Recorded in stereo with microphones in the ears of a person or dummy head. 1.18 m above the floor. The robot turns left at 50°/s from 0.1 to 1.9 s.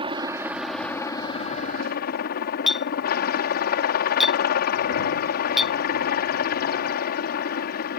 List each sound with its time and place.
0.0 s a helicopter: 150° right; by 8.0 s 120° left
2.7 s a clink: centre (ahead or behind)